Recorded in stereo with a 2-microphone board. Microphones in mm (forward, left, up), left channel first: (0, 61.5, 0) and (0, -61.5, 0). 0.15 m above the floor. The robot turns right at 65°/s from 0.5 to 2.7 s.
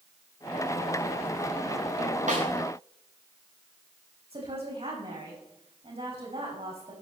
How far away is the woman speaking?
About 7 m.